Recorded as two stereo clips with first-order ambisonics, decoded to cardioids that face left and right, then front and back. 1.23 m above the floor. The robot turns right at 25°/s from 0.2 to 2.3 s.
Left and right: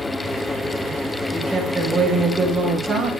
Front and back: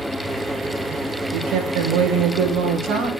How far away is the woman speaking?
About 4 m.